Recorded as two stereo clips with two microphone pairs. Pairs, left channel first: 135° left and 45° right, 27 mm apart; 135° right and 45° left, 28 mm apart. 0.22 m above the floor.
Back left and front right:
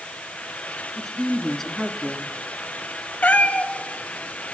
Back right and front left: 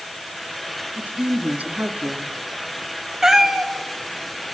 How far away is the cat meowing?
About 1.6 m.